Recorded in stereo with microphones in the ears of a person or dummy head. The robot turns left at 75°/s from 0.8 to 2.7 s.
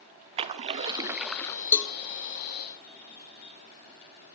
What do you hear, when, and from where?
0.4 s a splash: 145° right, 0.6 m; by 1.6 s 155° left, 0.6 m
1.7 s a cowbell: 10° left (ahead or behind), 0.8 m; by 1.9 s centre (ahead or behind), 0.8 m